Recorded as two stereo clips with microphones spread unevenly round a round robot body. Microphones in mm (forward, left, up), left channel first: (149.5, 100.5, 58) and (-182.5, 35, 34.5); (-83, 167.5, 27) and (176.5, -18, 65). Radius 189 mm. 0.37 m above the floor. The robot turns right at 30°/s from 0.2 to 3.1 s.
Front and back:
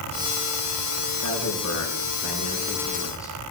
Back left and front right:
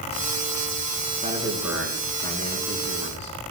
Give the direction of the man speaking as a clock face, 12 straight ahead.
11 o'clock.